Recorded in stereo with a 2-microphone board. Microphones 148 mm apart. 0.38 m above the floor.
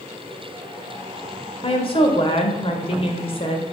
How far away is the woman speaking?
About 1.0 m.